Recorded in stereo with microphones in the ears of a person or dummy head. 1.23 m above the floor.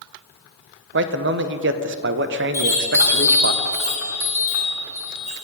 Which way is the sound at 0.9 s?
55° right (ahead or behind).